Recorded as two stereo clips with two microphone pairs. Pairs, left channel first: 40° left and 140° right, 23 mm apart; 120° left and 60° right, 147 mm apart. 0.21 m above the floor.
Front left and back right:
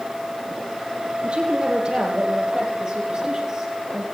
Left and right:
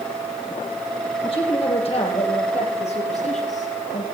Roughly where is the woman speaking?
Behind.